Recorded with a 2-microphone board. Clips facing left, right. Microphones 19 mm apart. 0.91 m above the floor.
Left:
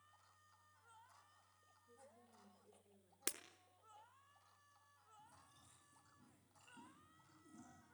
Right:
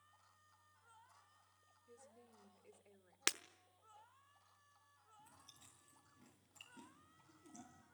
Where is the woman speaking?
50° right (ahead or behind), 2 m.